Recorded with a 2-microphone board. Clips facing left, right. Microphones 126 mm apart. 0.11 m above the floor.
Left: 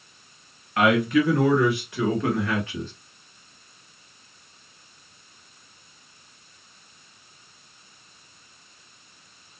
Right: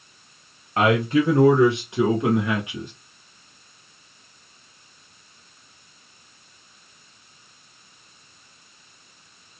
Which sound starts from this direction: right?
A man speaking, at 0.8 s.